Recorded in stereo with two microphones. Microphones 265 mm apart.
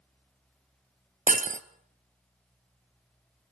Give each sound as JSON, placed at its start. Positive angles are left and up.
{"t": 1.3, "sound": "breaking glass", "side_deg": -30, "distance_m": 1.0}